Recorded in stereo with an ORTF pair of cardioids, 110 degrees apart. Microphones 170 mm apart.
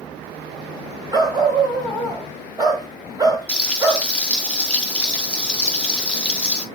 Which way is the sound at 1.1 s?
25° right.